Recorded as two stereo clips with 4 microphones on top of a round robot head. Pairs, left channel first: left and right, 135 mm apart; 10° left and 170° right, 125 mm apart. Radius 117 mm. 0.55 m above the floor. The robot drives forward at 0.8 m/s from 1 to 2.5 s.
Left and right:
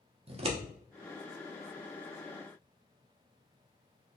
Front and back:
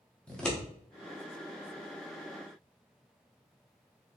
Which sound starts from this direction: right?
Scissors, at 0.3 s.